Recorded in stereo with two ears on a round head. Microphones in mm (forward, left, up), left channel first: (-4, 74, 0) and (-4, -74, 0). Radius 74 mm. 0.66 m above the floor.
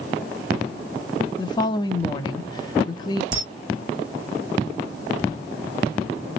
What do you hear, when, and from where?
1.4 s a woman speaking: 25° left (ahead or behind), 0.6 m
3.3 s a camera shutter: 50° right (ahead or behind), 1.6 m